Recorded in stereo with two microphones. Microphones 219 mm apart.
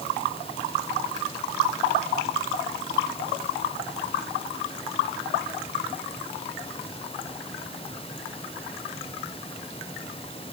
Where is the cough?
I don't hear a cough.